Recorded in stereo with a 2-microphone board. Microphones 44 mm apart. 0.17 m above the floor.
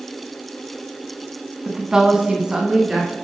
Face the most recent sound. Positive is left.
turn(degrees=-10)  # may be behind; listen again after turning